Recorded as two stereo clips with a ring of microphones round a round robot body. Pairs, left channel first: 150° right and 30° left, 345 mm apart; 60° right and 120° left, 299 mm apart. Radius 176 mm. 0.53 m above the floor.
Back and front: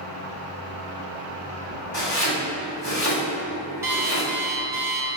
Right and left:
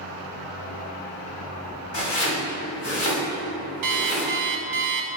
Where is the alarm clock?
110° left, 0.7 m.